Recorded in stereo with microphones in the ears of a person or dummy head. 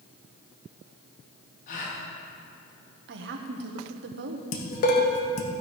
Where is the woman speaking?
70° right (ahead or behind), 1.2 m.